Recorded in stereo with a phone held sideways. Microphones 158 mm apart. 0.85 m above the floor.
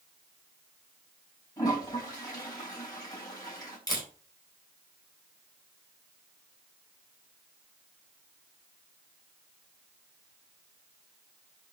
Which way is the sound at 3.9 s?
25° left (ahead or behind).